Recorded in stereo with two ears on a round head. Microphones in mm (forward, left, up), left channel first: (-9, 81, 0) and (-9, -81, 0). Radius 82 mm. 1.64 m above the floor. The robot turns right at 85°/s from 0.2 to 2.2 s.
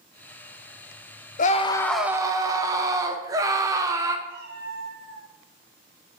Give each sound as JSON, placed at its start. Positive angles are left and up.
{"t": 1.4, "sound": "a scream", "azimuth_deg": 130, "distance_m": 1.0}
{"t": 4.3, "sound": "a cat meowing", "side_deg": -65, "distance_m": 3.5}